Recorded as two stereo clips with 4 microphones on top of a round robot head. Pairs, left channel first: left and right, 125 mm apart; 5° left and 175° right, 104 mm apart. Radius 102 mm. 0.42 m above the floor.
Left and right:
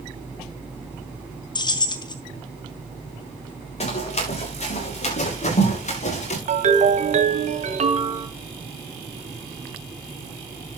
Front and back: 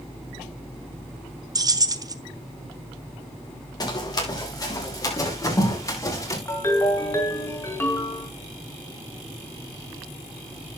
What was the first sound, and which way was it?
Keys jangling, 140° left.